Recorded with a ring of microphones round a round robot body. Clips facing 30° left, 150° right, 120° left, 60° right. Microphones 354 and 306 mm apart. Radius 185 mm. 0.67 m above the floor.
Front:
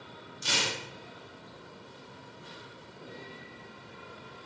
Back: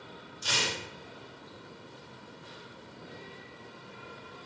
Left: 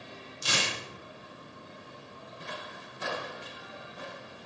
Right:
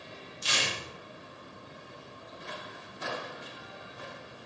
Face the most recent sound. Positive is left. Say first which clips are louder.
# even, left 2 dB
turn(degrees=85)